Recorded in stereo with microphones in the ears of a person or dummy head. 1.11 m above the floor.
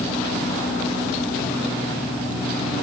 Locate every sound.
Only background noise.